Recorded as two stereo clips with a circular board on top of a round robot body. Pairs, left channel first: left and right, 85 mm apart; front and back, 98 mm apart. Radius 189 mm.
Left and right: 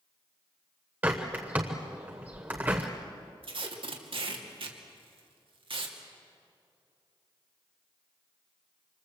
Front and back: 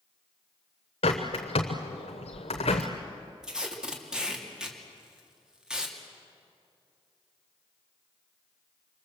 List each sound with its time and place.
1.0 s a bird: 20° right, 0.8 m
3.4 s tape being pulled: 95° right, 2.5 m